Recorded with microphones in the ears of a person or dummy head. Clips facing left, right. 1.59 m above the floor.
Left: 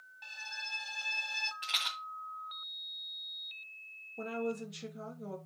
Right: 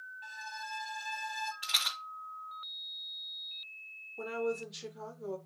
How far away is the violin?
About 1.6 m.